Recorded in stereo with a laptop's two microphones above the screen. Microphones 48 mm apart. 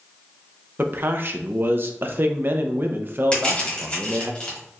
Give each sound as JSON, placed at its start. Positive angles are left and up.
{"t": 0.8, "sound": "a man speaking", "side_deg": -45, "distance_m": 0.6}
{"t": 3.3, "sound": "crushing", "side_deg": 25, "distance_m": 1.5}